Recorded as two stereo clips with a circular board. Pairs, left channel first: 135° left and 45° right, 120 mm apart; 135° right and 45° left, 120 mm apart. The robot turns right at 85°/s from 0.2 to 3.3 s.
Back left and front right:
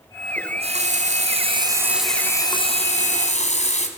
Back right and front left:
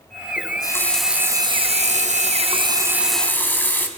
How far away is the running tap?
About 4 m.